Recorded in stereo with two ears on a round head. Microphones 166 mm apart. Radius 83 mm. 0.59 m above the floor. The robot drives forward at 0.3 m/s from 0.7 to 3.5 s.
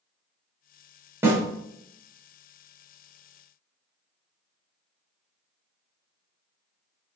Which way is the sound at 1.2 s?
15° right (ahead or behind).